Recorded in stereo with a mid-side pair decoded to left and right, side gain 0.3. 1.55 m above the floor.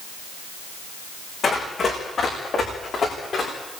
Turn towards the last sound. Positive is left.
turn(degrees=65)